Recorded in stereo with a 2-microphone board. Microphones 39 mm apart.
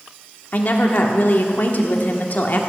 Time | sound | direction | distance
0.5 | a woman speaking | 50° left (ahead or behind) | 1.6 m